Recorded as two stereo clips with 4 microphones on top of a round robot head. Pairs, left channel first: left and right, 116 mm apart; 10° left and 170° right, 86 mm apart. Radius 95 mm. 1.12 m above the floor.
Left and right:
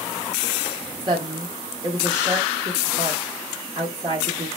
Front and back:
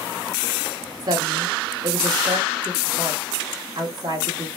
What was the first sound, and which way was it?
A woman speaking, 140° right.